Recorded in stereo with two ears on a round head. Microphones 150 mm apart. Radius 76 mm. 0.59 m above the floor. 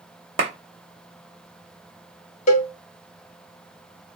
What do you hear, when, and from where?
0.4 s a clap: 40° right (ahead or behind), 0.6 m
2.5 s a cowbell: 45° left (ahead or behind), 0.5 m